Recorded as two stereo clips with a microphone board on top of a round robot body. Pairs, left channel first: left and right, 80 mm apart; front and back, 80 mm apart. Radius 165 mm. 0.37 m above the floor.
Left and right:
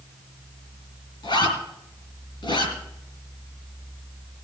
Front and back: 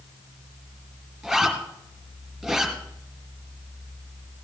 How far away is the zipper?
About 5 m.